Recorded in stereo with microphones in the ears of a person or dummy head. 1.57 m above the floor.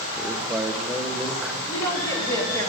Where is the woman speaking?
20° left (ahead or behind), 3 m.